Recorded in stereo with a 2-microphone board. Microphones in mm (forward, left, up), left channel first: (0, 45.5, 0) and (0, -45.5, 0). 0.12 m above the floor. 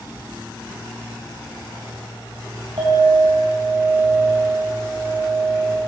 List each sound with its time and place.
2.8 s a clink: 70° right (ahead or behind), 3.5 m